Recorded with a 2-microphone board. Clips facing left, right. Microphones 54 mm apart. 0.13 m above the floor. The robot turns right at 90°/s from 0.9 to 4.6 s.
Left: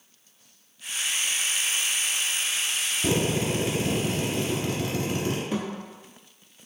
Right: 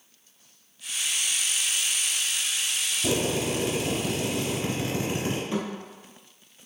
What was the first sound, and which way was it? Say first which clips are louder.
A drill: left 1 dB; 30° left (ahead or behind).